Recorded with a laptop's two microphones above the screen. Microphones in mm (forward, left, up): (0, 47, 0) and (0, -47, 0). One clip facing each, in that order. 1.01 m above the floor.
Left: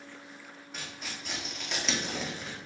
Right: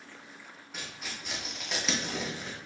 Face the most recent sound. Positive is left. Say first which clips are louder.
# even
turn(degrees=-5)  # may be behind; listen again after turning